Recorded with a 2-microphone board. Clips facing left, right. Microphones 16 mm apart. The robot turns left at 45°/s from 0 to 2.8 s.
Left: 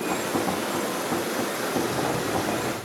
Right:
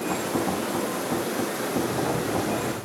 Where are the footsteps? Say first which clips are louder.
Even; 40° left (ahead or behind), 2.5 m; by 2.8 s 60° left (ahead or behind), 3 m.